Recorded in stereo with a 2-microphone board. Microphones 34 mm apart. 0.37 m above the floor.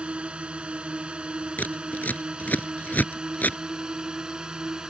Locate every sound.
0.0 s a drone: 35° right (ahead or behind); by 4.9 s 25° right (ahead or behind)
1.6 s scissors: 65° left (ahead or behind)